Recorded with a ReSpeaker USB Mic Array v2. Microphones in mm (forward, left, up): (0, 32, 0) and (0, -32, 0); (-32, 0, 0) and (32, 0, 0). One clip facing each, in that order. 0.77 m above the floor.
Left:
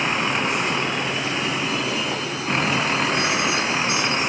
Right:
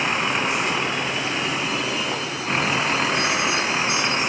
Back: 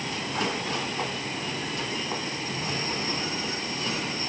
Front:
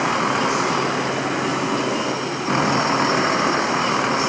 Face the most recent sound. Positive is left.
turn(degrees=0)